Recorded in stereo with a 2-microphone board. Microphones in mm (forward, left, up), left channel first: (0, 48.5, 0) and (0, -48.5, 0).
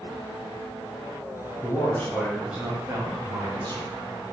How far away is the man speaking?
About 1.3 m.